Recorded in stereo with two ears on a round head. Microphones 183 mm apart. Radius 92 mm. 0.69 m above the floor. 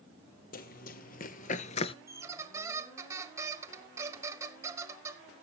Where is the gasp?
I don't hear a gasp.